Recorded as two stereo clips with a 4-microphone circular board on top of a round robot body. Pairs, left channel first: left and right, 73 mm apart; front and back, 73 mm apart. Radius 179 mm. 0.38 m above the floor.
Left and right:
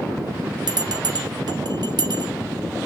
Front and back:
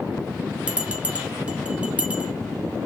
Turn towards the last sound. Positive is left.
turn(degrees=-105)